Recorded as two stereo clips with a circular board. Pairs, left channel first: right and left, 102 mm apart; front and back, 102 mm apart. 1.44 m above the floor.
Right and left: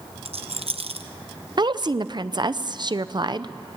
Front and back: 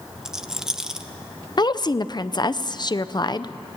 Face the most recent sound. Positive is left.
turn(degrees=45)